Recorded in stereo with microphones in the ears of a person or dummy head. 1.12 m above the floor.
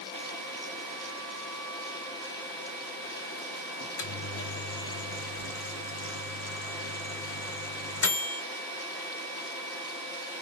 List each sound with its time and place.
3.8 s a microwave: 70° left (ahead or behind), 1.3 m